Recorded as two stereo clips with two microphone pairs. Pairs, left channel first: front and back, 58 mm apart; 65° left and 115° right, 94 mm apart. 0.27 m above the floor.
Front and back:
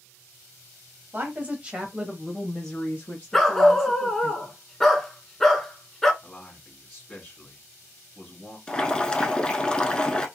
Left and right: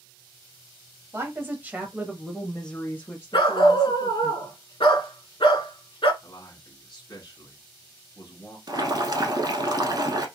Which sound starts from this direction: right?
Boiling, at 8.7 s.